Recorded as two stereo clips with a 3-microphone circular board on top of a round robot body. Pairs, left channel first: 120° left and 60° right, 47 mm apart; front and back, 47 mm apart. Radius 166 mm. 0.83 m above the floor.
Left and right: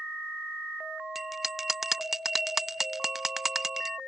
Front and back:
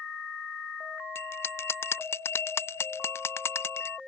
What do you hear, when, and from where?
1.1 s a bell: 25° left